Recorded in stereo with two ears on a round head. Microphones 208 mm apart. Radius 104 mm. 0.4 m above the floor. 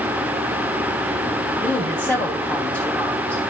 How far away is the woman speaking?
About 2.5 m.